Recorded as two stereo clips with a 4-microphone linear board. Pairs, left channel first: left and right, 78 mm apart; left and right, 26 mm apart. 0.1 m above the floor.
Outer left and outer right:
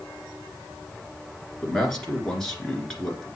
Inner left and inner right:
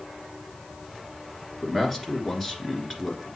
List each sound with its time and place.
1.6 s a man speaking: 5° left (ahead or behind), 1.6 m